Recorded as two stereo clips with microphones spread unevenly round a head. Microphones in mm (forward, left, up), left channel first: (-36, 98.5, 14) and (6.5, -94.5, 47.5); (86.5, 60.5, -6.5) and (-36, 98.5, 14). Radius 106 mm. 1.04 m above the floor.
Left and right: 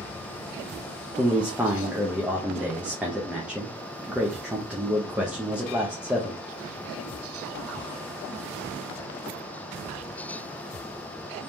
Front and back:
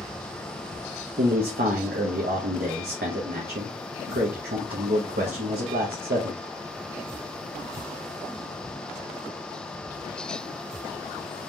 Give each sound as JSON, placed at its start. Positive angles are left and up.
{"t": 1.2, "sound": "a man speaking", "azimuth_deg": -165, "distance_m": 0.7}